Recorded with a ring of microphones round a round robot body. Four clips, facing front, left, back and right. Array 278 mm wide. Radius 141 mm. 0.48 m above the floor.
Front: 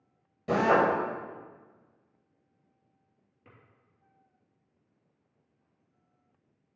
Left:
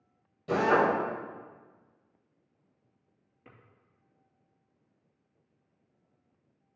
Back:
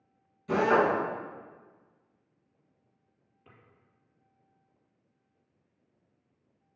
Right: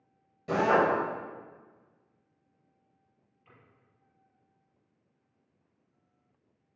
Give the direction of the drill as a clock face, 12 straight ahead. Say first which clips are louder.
Even, front 1 dB; 12 o'clock.